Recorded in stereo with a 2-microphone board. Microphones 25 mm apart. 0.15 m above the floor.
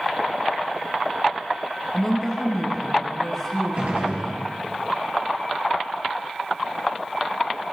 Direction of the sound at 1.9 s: 15° left (ahead or behind).